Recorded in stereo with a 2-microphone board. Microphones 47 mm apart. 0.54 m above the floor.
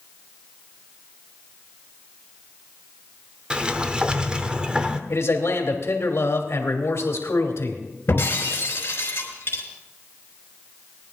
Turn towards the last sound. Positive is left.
turn(degrees=50)  # may be behind; listen again after turning